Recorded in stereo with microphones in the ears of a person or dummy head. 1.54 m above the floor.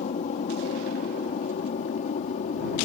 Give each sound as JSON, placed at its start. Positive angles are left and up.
{"t": 0.0, "sound": "an aircraft", "side_deg": 35}